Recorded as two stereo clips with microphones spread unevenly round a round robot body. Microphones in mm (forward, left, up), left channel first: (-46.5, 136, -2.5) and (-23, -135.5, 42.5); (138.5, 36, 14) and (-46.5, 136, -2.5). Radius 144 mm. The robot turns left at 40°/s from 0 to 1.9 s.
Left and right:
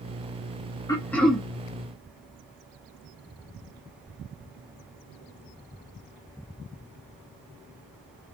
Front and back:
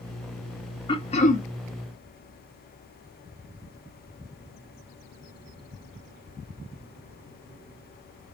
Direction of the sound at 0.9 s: 35° left.